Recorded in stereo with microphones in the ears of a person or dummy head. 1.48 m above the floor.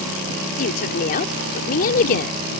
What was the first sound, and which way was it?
A woman speaking, 55° left (ahead or behind).